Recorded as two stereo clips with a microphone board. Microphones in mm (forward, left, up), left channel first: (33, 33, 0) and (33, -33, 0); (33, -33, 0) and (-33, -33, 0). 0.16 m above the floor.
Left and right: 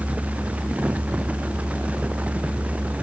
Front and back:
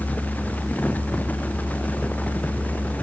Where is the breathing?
No breathing in this recording.